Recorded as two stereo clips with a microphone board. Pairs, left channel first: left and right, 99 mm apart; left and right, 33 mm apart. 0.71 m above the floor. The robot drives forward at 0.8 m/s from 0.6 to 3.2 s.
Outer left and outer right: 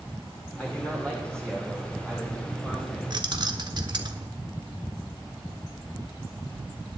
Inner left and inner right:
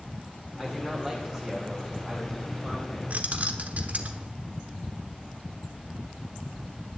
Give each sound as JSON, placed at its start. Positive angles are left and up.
{"t": 0.6, "sound": "a man speaking", "side_deg": 15, "distance_m": 2.5}
{"t": 3.1, "sound": "keys jangling", "side_deg": -50, "distance_m": 1.1}